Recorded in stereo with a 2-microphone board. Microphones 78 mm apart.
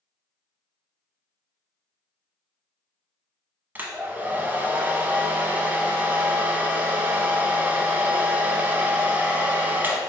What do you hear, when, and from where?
3.8 s a hair dryer: 25° right (ahead or behind), 0.5 m